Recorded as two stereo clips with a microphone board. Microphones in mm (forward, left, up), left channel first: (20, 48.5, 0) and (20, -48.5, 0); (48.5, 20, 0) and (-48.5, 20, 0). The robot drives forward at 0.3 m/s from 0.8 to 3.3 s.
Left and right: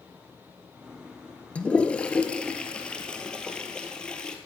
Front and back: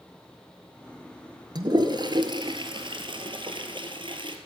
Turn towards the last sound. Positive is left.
turn(degrees=170)